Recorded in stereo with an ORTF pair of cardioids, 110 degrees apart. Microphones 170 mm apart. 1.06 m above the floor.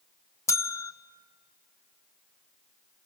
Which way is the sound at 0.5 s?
15° left.